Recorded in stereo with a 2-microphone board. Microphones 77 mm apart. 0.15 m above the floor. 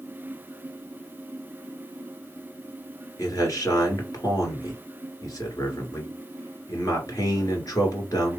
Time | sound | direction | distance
3.2 | a man speaking | 50° left (ahead or behind) | 2.0 m